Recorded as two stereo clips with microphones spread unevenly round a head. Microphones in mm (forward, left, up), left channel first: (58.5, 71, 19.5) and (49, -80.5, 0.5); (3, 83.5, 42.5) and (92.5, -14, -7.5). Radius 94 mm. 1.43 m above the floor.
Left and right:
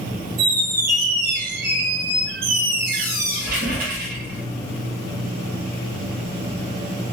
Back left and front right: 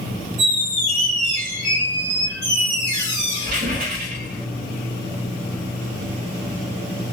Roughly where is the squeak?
Right.